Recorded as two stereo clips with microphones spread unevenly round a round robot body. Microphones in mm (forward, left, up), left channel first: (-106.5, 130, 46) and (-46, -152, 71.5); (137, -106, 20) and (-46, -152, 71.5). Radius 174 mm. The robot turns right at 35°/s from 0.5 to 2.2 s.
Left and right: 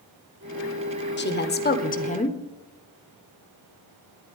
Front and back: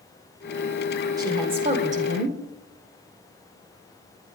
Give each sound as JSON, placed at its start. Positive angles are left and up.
{"t": 1.2, "sound": "a woman speaking", "azimuth_deg": 115, "distance_m": 1.4}